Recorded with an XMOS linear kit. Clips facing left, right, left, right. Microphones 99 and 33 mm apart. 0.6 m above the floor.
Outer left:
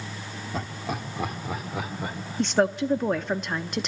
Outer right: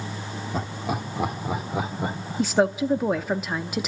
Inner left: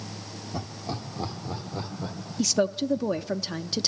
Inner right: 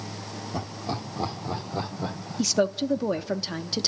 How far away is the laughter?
About 1.3 m.